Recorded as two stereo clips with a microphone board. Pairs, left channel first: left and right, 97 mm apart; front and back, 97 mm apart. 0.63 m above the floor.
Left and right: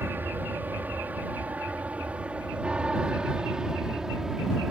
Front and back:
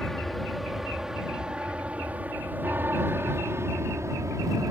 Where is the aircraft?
80° right; by 4.7 s 170° right.